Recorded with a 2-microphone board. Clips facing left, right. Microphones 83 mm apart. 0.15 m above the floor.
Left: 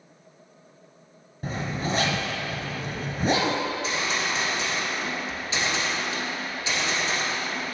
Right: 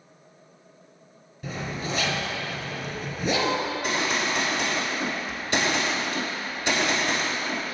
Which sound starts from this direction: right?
A gunshot, at 3.6 s.